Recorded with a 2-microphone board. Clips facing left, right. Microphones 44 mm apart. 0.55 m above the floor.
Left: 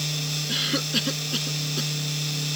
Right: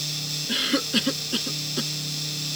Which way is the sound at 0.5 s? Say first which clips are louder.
Right 3 dB; 15° right (ahead or behind).